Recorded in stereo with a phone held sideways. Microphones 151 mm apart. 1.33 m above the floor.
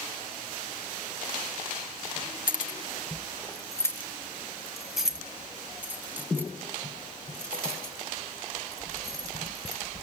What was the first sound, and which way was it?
Keys jangling, 65° left (ahead or behind).